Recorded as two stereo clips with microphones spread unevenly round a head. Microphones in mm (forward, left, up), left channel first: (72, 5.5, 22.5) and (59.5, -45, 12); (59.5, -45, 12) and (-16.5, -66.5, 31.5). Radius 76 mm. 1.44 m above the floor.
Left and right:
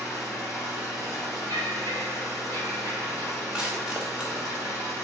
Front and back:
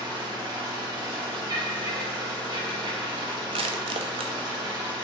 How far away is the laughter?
About 2 m.